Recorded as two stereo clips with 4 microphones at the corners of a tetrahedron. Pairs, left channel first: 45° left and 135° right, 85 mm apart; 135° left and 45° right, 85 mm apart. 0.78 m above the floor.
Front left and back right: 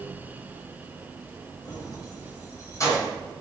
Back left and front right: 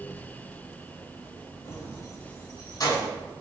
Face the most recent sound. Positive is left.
turn(degrees=95)